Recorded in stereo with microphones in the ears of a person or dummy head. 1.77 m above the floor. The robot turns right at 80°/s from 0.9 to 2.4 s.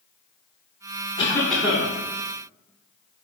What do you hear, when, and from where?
1.2 s a cough: 150° left, 0.7 m; by 1.9 s 150° right, 0.7 m